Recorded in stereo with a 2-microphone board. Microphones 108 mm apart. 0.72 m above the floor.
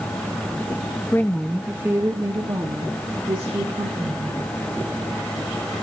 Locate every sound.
1.1 s a woman speaking: 20° left (ahead or behind), 0.8 m; by 4.5 s 55° right (ahead or behind), 2.5 m